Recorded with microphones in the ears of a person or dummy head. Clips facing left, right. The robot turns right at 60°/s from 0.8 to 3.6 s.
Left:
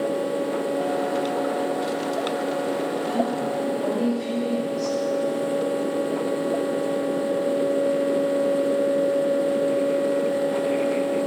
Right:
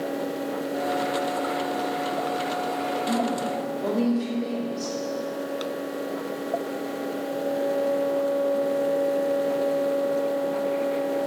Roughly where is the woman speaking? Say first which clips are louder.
Left 2 dB; right.